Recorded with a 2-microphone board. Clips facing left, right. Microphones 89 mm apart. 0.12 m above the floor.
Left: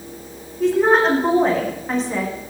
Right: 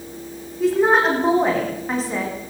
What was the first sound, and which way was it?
A woman speaking, 5° right (ahead or behind).